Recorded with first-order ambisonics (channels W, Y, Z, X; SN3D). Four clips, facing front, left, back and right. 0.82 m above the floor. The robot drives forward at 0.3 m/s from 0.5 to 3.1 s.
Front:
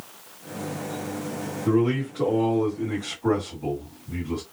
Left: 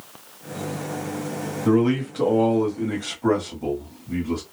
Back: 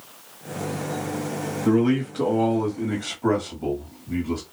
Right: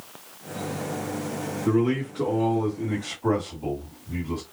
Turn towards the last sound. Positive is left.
turn(degrees=145)